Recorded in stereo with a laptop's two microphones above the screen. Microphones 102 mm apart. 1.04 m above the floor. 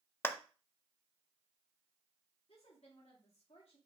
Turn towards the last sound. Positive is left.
turn(degrees=80)